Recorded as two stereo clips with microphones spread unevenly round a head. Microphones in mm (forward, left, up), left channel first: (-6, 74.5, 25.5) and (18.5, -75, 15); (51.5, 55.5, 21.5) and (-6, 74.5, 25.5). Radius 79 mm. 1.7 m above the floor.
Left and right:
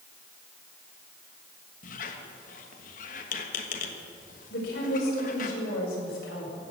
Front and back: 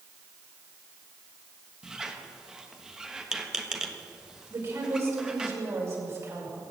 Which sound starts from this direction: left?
A squeak, at 1.8 s.